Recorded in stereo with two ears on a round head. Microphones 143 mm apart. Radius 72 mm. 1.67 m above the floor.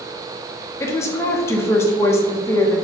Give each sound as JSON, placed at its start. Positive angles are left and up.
{"t": 0.8, "sound": "a woman speaking", "side_deg": 15, "distance_m": 0.5}